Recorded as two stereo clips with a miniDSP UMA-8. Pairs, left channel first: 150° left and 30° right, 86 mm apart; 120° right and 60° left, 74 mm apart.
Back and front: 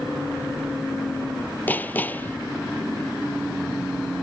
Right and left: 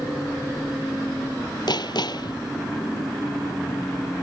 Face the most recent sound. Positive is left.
turn(degrees=-140)